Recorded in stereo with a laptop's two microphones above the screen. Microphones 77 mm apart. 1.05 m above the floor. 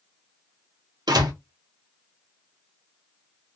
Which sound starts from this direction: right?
A door slam, at 1.1 s.